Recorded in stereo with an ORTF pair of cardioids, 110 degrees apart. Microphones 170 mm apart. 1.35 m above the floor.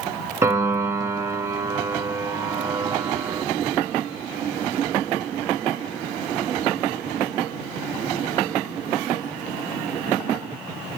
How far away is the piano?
About 1.4 m.